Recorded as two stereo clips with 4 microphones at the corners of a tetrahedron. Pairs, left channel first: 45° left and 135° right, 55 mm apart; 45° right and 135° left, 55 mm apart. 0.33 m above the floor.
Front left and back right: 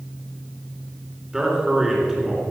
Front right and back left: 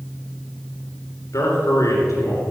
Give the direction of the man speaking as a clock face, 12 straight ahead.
2 o'clock.